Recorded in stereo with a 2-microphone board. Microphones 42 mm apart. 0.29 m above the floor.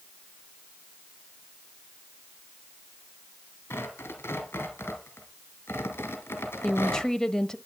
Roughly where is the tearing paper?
Left.